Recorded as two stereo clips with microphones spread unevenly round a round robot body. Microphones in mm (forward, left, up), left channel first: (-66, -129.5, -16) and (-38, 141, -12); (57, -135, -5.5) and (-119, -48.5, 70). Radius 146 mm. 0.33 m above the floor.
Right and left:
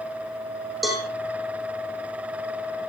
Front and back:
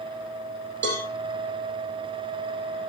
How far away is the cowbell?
About 5 m.